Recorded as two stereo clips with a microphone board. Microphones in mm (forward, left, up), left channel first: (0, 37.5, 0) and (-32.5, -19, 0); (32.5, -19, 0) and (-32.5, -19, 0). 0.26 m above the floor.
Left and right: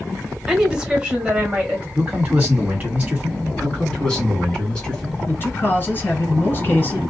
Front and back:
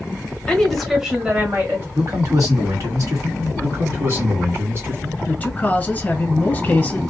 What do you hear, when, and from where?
0.5 s a woman speaking: 55° right, 1.1 m; by 1.9 s 175° right, 1.3 m
1.9 s a man speaking: straight behind, 1.7 m
3.6 s a man speaking: 135° left, 1.9 m
5.3 s a man speaking: 45° left, 1.1 m